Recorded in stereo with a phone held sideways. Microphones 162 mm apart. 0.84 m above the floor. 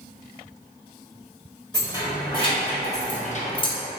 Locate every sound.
1.7 s keys jangling: 25° left (ahead or behind), 2.0 m